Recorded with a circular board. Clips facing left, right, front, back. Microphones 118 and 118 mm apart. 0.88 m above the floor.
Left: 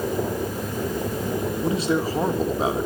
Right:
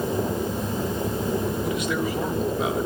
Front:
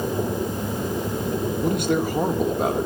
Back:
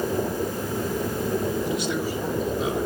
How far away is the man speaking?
About 2.5 m.